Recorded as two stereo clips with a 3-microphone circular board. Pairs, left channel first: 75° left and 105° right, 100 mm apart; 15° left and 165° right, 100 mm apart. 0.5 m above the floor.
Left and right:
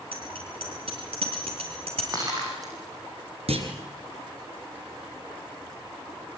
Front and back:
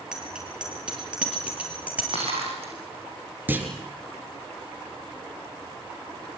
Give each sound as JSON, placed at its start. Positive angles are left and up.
{"t": 0.1, "sound": "a bicycle bell", "azimuth_deg": -80, "distance_m": 7.0}
{"t": 2.1, "sound": "breaking glass", "azimuth_deg": -160, "distance_m": 8.0}
{"t": 3.5, "sound": "a clunk", "azimuth_deg": -95, "distance_m": 3.0}